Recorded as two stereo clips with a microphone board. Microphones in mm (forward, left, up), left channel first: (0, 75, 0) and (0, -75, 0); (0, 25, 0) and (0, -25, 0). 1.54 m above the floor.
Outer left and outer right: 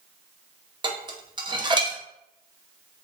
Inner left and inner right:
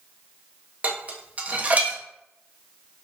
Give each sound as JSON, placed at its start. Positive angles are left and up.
{"t": 0.8, "sound": "dishes clattering", "side_deg": -30, "distance_m": 0.6}